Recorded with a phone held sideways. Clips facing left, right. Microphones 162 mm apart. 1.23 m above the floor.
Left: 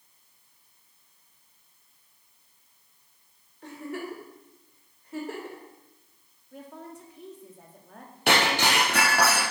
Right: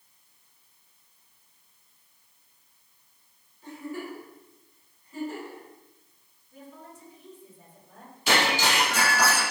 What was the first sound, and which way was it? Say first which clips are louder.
A giggle: left 1 dB; 70° left (ahead or behind).